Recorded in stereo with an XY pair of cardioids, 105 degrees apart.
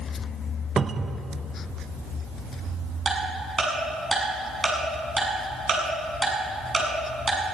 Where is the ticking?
35° right, 6 m.